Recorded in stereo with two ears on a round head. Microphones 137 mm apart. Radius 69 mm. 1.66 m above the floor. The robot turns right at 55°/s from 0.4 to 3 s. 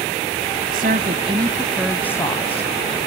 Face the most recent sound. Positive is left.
turn(degrees=65)